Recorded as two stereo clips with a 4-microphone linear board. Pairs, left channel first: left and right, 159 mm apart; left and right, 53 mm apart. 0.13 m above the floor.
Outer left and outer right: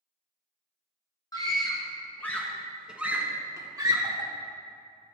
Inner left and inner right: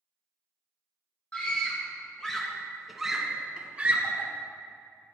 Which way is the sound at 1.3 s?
25° left (ahead or behind).